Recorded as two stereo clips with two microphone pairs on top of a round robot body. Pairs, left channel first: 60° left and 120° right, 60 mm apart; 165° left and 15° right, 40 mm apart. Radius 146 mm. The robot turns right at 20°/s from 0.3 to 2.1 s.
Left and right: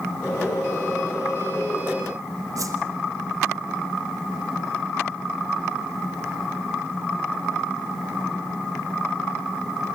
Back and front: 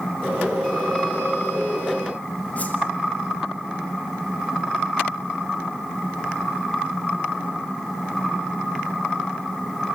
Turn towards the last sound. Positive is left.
turn(degrees=-140)